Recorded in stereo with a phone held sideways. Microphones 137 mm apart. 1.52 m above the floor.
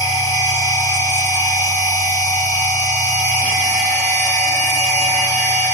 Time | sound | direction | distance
0.0 | a machine running | 15° right (ahead or behind) | 1.4 m